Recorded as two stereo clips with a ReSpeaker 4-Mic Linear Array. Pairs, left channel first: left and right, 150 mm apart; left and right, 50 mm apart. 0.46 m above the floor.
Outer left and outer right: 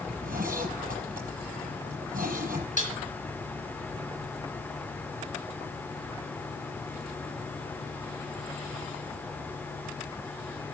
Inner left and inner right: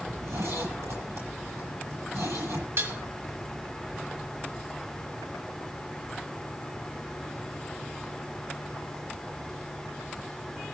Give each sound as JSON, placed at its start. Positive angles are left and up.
{"t": 0.1, "sound": "a zipper", "side_deg": -80, "distance_m": 6.0}
{"t": 2.8, "sound": "dishes clattering", "side_deg": -60, "distance_m": 3.0}